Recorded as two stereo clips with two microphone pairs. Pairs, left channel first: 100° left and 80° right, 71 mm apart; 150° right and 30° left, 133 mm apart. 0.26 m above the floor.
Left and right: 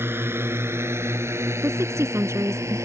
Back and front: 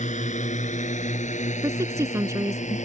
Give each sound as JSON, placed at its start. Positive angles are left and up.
{"t": 0.0, "sound": "a drone", "azimuth_deg": -135}
{"t": 1.6, "sound": "a woman speaking", "azimuth_deg": -40}